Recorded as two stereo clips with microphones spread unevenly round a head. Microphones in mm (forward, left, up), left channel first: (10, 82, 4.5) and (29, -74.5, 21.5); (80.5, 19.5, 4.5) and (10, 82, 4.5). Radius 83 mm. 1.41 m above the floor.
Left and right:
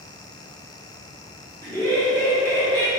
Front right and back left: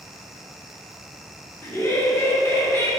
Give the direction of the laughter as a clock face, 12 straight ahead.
11 o'clock.